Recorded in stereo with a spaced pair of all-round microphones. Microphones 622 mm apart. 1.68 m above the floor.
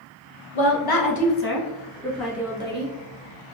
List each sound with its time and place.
0.6 s a woman speaking: 50° left (ahead or behind), 0.9 m; by 2.9 s 10° right (ahead or behind), 1.4 m